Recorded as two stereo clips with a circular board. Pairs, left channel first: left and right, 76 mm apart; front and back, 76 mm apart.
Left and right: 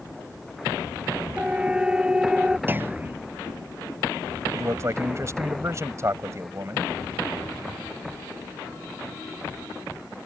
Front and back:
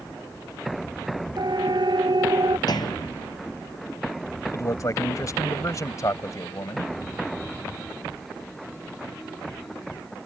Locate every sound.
1.4 s a siren: 165° right; by 2.6 s 170° right
2.7 s a clunk: 25° right
4.5 s a man speaking: 40° right